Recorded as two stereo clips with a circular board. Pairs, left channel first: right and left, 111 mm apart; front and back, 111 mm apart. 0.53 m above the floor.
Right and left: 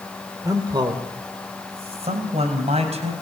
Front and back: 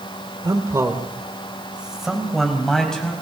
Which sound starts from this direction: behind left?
A man speaking, at 0.4 s.